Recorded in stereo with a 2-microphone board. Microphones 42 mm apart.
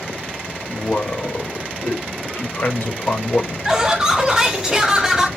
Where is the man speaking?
55° left (ahead or behind), 1.2 m.